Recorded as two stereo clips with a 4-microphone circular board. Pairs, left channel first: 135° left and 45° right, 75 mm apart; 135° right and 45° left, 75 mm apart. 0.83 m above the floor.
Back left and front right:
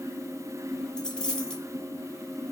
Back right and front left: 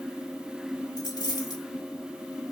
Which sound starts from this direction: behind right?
A dropped coin, at 1.0 s.